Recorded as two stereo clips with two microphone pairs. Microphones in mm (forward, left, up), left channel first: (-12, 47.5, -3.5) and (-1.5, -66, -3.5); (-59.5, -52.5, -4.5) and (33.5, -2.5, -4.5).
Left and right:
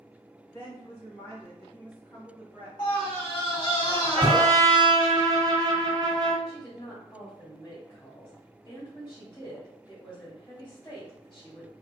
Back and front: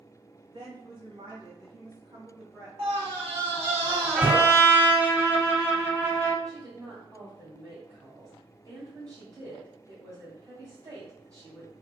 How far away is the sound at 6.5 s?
About 1.9 m.